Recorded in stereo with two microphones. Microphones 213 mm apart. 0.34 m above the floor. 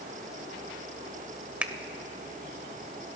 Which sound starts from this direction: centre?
A finger snap, at 1.6 s.